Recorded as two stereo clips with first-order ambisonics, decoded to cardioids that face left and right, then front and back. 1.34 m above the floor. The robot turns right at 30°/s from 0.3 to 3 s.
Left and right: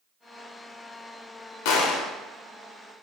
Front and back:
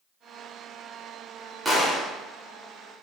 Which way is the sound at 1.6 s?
100° left.